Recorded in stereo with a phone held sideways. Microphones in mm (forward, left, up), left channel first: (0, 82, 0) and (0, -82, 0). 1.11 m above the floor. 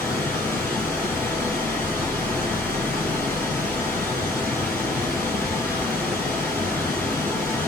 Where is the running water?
15° left (ahead or behind), 3 m.